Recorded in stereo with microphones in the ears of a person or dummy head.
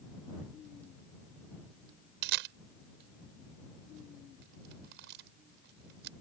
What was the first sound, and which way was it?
A camera shutter, 65° right (ahead or behind).